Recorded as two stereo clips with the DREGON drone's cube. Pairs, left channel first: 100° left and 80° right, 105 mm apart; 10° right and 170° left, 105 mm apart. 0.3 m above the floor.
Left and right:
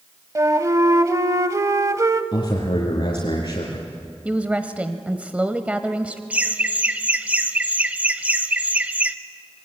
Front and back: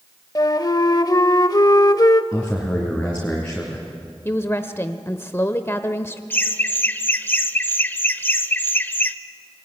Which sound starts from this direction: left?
A man speaking, at 2.3 s.